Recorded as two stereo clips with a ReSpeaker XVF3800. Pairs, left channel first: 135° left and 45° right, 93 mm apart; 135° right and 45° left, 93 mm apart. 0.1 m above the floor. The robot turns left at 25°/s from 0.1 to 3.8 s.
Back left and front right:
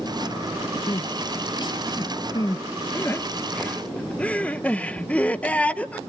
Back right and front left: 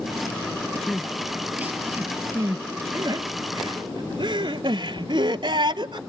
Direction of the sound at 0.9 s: 135° left.